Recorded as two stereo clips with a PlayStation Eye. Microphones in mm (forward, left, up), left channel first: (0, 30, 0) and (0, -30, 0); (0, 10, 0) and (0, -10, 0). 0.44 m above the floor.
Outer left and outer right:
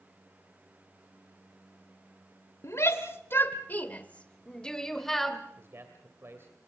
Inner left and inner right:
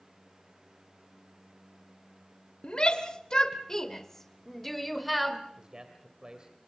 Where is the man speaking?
45° right (ahead or behind), 2.5 m.